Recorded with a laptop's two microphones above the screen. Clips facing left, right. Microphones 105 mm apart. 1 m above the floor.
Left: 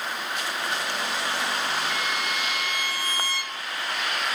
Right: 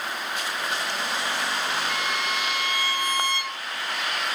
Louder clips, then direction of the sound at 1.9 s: Right 1 dB; 40° right (ahead or behind).